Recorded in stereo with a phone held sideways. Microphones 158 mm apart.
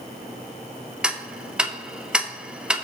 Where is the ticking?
5° right (ahead or behind), 0.6 m.